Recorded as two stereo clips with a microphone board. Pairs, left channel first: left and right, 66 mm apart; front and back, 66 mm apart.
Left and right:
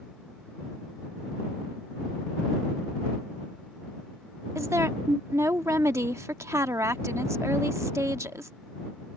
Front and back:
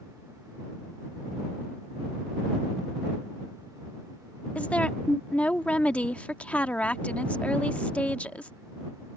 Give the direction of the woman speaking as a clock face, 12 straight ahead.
2 o'clock.